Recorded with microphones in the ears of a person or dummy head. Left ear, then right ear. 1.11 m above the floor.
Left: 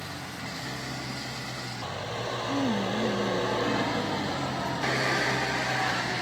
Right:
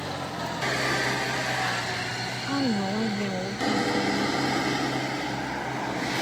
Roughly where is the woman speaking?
Right.